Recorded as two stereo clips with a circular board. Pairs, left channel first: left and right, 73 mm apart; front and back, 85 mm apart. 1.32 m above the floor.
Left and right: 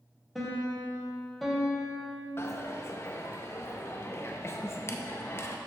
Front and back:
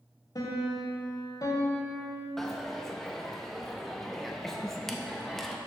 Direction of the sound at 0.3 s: 5° left.